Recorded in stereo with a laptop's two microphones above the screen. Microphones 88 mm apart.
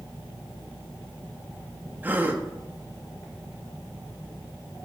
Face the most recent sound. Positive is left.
turn(degrees=-20)  # may be behind; listen again after turning